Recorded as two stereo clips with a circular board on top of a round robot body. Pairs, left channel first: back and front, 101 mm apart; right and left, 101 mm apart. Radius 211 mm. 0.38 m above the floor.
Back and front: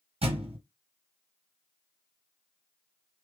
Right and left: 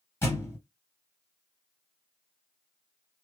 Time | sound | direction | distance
0.2 | a thud | 25° right | 1.8 m